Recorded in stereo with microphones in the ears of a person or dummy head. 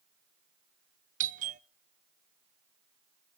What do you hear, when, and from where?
1.2 s a doorbell: 40° right (ahead or behind), 0.5 m